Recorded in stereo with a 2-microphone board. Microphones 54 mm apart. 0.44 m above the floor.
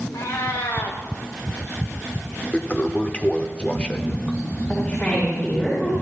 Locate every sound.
0.1 s a cat meowing: 80° left, 2.5 m
2.5 s a toilet flushing: 25° left (ahead or behind), 0.9 m
4.7 s a woman speaking: 30° left (ahead or behind), 6 m